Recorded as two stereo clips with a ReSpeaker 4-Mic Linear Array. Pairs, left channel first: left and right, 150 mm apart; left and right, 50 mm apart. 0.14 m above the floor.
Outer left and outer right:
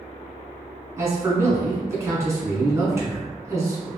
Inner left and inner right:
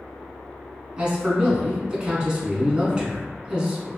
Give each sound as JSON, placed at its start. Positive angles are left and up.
{"t": 1.0, "sound": "a man speaking", "side_deg": -20, "distance_m": 1.2}